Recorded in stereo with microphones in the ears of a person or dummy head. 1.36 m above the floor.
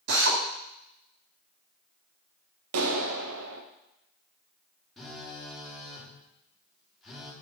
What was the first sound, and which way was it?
A drill, 55° right (ahead or behind).